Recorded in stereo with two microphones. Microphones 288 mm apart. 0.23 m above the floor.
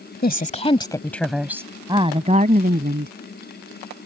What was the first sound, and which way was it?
A woman speaking, 30° left (ahead or behind).